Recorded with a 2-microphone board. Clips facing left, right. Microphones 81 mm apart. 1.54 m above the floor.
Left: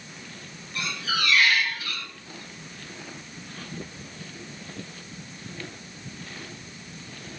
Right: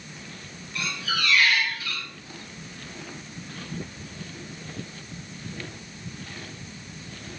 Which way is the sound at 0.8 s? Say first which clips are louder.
Even; 45° left (ahead or behind).